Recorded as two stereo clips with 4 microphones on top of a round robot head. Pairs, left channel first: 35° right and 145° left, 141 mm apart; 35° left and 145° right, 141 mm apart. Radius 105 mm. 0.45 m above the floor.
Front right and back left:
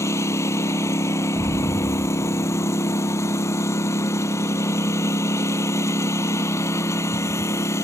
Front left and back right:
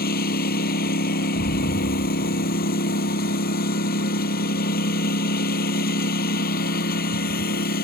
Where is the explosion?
75° left.